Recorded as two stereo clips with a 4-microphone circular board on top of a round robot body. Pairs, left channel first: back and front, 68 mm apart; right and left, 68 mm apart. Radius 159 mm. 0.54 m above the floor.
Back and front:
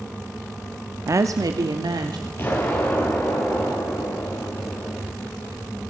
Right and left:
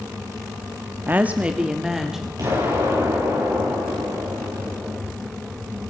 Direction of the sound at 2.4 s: 120° left.